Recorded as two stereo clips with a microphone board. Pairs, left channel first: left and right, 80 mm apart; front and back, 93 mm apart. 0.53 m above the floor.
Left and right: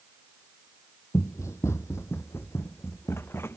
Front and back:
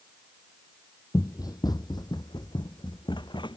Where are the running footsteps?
45° left; by 3.6 s 30° left.